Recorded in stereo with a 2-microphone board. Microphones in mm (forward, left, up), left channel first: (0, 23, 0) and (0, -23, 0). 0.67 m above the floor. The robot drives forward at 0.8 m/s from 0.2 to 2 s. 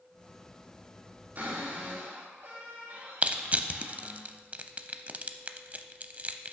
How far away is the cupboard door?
About 3.5 m.